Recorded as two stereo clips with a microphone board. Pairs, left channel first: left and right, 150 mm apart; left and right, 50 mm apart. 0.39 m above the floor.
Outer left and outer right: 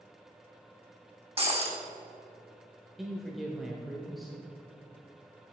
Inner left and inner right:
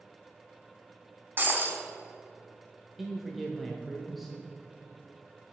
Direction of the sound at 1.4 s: 40° right (ahead or behind).